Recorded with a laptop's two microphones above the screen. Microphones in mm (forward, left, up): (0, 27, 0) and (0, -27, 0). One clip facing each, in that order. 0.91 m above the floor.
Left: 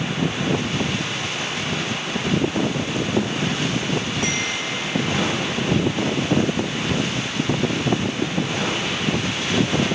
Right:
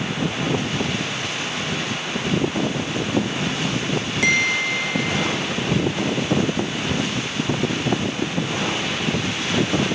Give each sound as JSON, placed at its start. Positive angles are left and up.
{"t": 4.2, "sound": "a bell", "side_deg": -80, "distance_m": 2.5}